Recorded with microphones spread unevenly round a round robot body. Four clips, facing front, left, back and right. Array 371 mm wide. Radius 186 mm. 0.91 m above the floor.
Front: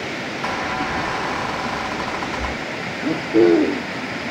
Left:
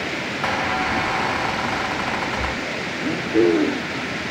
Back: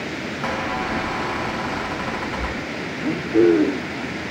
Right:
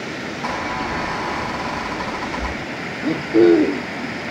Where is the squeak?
80° left, 5 m.